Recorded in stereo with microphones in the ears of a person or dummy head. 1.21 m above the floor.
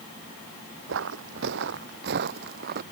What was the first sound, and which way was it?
Footsteps, 70° right (ahead or behind).